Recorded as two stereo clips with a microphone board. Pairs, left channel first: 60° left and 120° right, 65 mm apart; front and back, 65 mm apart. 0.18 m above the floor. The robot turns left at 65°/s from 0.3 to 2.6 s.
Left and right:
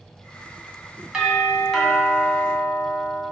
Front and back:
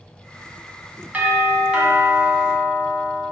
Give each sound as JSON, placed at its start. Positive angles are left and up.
{"t": 1.1, "sound": "a doorbell", "azimuth_deg": 180, "distance_m": 1.8}